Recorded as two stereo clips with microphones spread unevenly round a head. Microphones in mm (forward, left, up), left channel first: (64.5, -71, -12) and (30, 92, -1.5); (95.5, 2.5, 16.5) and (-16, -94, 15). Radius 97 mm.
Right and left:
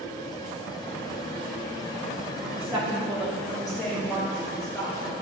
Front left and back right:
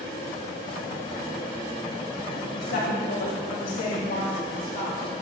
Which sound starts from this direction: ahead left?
A woman speaking, at 2.6 s.